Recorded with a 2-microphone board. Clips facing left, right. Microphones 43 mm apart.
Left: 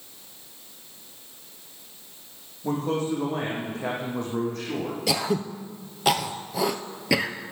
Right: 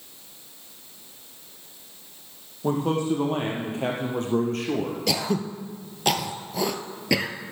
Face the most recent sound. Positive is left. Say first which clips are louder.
# left 2 dB
turn(degrees=5)  # may be behind; listen again after turning